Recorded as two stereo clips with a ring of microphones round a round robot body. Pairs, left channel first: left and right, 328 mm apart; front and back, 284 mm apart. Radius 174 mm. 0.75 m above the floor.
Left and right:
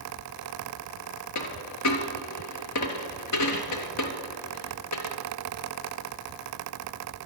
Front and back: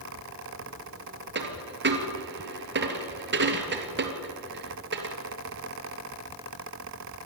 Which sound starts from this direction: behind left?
A dropped coin, at 1.4 s.